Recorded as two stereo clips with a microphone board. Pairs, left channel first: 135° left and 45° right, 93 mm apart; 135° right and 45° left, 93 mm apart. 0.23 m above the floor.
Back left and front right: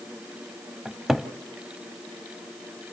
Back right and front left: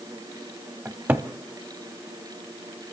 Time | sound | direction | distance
0.8 | a cupboard door | 30° left | 1.1 m